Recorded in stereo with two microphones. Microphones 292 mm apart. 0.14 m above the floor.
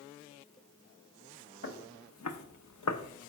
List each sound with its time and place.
1.6 s footsteps: 45° left (ahead or behind), 0.9 m; by 3.3 s 55° left (ahead or behind), 0.8 m